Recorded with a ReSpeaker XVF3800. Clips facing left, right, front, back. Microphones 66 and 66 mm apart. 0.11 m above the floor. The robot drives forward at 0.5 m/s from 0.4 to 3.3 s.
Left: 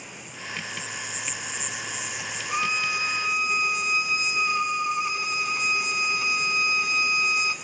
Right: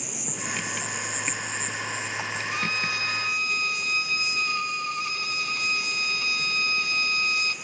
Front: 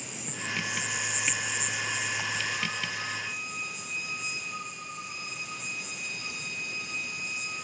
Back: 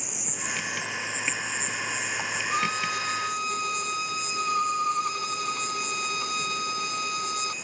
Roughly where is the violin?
Behind left.